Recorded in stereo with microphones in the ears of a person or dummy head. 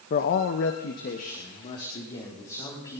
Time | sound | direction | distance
0.1 | a man speaking | 40° left (ahead or behind) | 0.8 m